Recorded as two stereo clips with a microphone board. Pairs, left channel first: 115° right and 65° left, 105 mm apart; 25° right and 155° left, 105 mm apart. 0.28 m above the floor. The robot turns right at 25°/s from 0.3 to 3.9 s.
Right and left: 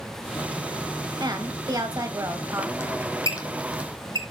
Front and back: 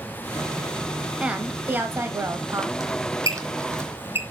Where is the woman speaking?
80° left, 1.1 m; by 2.7 s 115° left, 1.1 m.